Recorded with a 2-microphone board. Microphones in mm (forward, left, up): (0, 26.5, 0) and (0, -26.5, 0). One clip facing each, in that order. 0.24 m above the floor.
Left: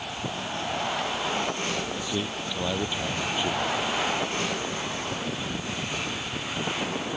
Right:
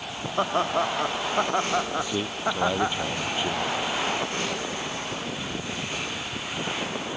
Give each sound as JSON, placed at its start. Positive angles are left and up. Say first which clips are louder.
{"t": 0.4, "sound": "laughter", "louder": "right 9 dB", "side_deg": -70}
{"t": 2.0, "sound": "a man speaking", "louder": "right 3 dB", "side_deg": -15}